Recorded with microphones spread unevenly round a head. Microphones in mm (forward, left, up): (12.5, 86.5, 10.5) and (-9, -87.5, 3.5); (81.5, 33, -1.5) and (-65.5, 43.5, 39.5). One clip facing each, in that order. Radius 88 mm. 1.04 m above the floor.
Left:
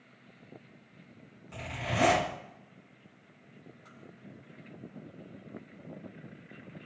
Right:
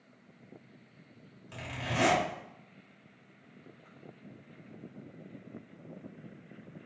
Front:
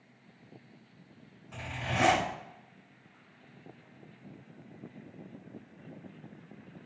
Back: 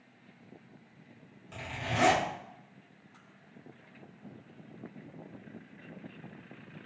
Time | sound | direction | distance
1.5 | a zipper | 120° right | 2 m